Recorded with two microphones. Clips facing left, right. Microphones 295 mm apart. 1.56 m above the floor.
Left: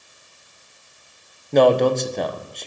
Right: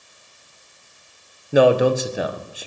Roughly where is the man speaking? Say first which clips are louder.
Even; centre.